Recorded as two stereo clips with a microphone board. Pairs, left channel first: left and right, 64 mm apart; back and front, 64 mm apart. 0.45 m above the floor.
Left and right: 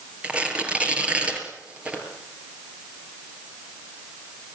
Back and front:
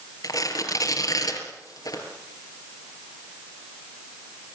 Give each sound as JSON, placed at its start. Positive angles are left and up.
{"t": 0.2, "sound": "tearing paper", "azimuth_deg": -160, "distance_m": 5.0}